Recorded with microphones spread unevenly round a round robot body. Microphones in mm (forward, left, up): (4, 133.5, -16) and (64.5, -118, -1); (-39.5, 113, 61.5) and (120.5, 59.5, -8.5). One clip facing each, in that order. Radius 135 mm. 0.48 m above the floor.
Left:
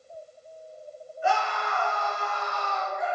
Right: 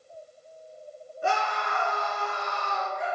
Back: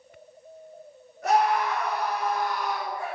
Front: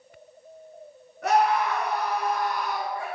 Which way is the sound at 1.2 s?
30° right.